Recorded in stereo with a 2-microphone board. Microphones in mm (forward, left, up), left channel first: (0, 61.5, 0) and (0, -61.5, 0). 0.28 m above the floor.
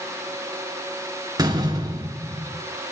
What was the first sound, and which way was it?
A door slam, 30° right (ahead or behind).